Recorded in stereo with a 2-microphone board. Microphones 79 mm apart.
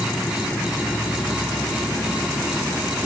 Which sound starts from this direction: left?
An insect, at 0.0 s.